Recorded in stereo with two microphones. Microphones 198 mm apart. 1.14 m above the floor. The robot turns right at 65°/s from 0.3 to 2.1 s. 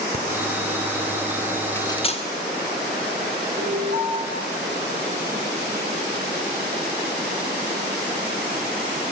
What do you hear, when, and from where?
0.1 s breathing: 60° right (ahead or behind), 1.7 m
1.8 s cutlery clinking: 10° left (ahead or behind), 2.5 m; by 2.2 s 35° left (ahead or behind), 2.5 m
3.6 s an alarm: 55° right (ahead or behind), 6 m